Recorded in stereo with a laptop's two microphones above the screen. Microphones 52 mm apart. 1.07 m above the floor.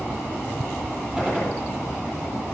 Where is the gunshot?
20° right (ahead or behind), 6.5 m.